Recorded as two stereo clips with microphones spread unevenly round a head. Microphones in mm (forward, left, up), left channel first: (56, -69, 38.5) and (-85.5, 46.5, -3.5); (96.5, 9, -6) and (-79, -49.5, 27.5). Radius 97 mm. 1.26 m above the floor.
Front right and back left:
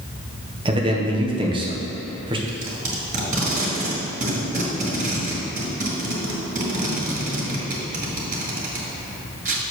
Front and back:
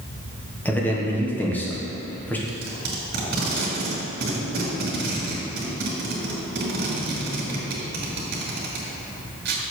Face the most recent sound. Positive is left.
turn(degrees=-165)